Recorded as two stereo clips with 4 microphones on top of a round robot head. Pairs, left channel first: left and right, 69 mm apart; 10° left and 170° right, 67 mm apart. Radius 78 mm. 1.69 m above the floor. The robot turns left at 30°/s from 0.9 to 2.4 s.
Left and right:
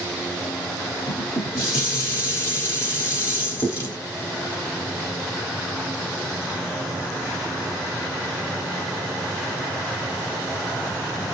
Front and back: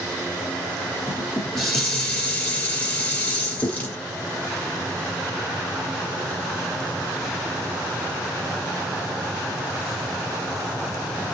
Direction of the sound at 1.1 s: 105° left.